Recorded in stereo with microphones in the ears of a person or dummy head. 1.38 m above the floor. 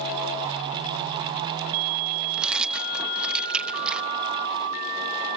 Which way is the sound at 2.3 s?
Centre (ahead or behind).